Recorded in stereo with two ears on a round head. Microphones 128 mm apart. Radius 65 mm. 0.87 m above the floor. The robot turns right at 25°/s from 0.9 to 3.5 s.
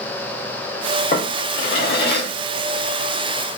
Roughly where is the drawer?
Left.